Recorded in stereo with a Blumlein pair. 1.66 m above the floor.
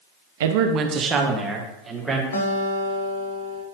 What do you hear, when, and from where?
0.4 s a man speaking: 55° right, 0.5 m; by 2.2 s 10° right, 2 m
2.3 s a guitar: 65° left, 1.2 m